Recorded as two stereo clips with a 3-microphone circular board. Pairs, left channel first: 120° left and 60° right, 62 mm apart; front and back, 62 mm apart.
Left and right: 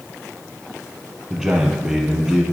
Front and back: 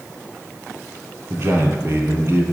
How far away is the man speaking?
About 2.5 m.